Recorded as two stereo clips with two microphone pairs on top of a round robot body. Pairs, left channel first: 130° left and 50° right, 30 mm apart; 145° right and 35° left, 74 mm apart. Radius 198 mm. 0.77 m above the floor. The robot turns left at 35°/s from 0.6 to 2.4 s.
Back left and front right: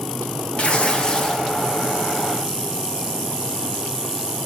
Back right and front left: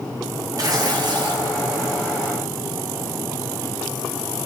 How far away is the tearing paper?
About 1.1 m.